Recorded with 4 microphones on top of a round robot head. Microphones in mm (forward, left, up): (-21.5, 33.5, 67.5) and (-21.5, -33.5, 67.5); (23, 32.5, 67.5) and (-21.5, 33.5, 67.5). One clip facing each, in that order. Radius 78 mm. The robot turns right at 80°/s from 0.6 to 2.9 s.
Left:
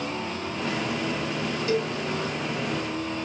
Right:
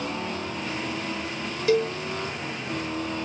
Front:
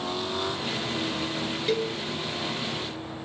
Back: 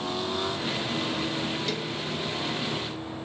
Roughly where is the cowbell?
Right.